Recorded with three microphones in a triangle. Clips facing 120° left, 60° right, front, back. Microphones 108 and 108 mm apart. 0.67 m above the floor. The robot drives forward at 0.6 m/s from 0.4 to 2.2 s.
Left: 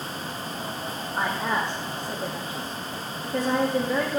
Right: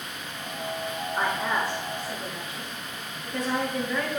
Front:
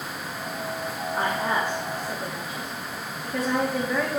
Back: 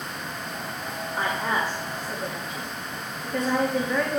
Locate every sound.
1.2 s a woman speaking: 45° left, 1.3 m; by 4.2 s 85° left, 1.1 m